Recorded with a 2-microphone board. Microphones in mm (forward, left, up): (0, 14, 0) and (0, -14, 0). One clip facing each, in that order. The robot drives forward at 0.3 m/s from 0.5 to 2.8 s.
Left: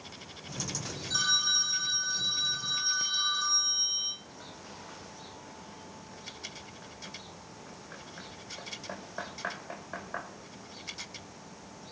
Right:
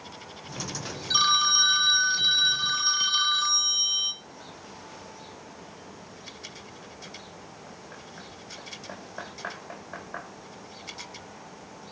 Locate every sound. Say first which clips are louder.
1.1 s a phone ringing: right 6 dB; 60° right (ahead or behind), 1.8 m; by 4.2 s 65° right (ahead or behind), 1.7 m